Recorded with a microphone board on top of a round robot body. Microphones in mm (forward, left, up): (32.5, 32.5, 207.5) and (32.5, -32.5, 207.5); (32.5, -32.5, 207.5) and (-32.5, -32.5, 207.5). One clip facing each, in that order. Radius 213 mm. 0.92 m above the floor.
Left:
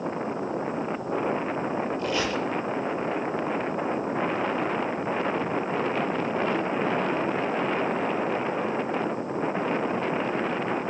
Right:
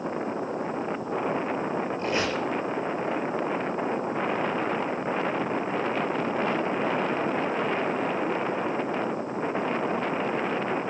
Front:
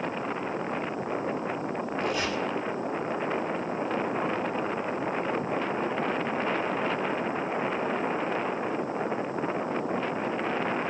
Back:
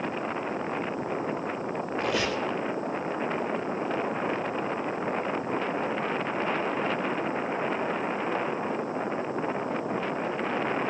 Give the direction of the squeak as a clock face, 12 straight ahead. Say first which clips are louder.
Even, back 2 dB; 5 o'clock.